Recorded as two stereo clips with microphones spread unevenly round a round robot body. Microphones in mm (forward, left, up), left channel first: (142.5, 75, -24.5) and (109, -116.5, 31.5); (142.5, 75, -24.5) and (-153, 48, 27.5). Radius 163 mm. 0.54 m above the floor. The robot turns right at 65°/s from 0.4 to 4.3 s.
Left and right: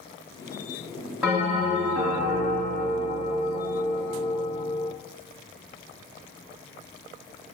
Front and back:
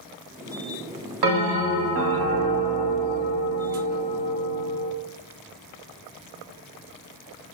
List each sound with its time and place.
1.2 s a bell: 170° left, 0.8 m; by 4.9 s 10° left, 0.8 m